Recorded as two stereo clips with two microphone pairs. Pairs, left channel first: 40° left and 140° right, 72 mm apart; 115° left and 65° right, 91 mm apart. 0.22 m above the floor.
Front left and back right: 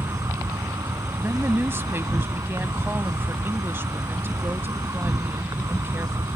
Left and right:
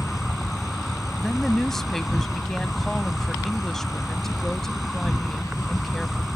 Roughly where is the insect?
Behind right.